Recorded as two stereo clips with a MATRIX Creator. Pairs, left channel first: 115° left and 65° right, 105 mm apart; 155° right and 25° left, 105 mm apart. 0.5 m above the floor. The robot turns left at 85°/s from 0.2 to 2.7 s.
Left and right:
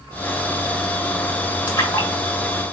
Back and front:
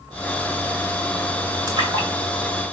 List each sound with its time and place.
1.7 s a splash: 70° left, 1.8 m; by 2.1 s 35° left, 1.8 m